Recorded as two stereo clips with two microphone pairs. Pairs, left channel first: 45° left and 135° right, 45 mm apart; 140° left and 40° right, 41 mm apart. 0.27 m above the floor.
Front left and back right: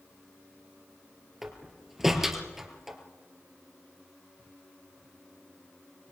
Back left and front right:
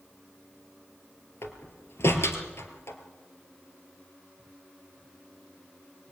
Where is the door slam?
140° left, 3.5 m.